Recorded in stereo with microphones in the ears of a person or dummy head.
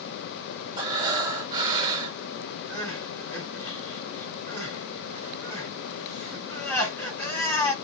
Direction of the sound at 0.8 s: 30° right (ahead or behind).